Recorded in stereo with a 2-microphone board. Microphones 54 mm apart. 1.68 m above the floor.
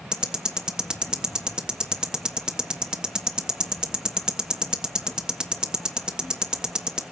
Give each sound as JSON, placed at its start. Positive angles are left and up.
{"t": 0.1, "sound": "ticking", "side_deg": -15, "distance_m": 1.2}